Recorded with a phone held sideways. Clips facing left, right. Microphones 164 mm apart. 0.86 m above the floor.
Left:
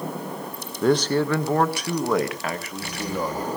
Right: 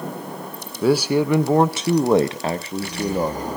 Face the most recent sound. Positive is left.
turn(degrees=-25)  # may be behind; listen again after turning